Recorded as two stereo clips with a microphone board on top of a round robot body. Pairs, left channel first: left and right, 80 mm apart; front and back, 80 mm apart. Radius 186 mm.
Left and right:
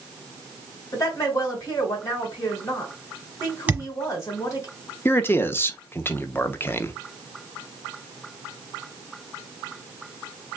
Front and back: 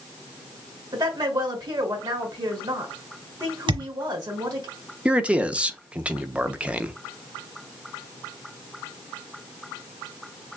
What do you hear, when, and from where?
0.9 s a woman speaking: 145° left, 3 m
3.7 s a thud: 160° right, 1.3 m
5.0 s a man speaking: 120° left, 0.9 m